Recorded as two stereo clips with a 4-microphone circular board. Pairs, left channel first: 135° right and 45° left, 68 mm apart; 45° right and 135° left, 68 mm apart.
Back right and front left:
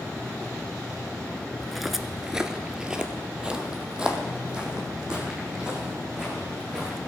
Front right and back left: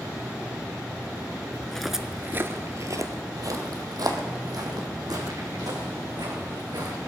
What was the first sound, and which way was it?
Footsteps, 55° right.